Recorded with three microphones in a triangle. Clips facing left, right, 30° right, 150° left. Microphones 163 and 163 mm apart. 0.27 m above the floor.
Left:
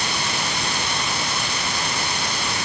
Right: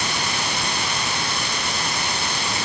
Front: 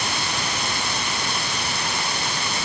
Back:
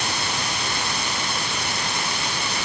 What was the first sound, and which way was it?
Only background noise.